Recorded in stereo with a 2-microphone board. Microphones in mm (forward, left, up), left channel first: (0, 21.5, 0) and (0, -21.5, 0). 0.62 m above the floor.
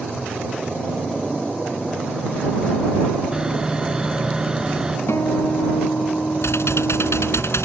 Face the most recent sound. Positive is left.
turn(degrees=80)